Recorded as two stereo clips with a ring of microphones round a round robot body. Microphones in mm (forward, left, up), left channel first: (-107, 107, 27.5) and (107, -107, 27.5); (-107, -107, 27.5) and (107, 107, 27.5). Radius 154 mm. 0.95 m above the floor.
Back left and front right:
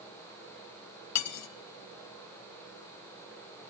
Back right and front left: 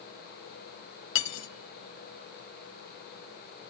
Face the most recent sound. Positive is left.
turn(degrees=175)